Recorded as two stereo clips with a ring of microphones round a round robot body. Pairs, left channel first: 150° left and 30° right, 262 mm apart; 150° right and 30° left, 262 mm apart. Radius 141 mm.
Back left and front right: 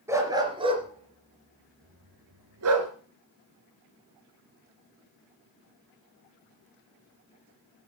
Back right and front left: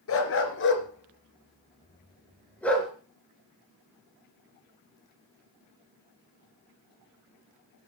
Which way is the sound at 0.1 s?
110° right.